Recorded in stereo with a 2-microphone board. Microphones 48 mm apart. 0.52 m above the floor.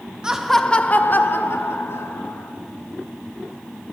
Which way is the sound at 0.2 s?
15° right (ahead or behind).